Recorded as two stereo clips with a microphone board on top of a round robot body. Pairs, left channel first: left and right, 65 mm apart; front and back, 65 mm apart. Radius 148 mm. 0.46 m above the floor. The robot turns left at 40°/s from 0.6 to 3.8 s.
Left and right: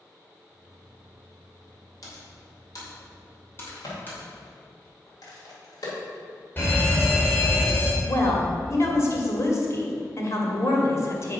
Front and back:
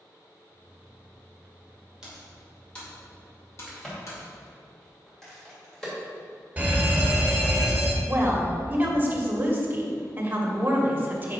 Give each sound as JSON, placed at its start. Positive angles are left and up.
{"t": 2.0, "sound": "typing on a keyboard", "azimuth_deg": 100, "distance_m": 2.5}
{"t": 3.7, "sound": "a crack", "azimuth_deg": 90, "distance_m": 2.5}
{"t": 6.6, "sound": "a fire alarm", "azimuth_deg": 125, "distance_m": 2.0}
{"t": 8.0, "sound": "a woman speaking", "azimuth_deg": 125, "distance_m": 1.8}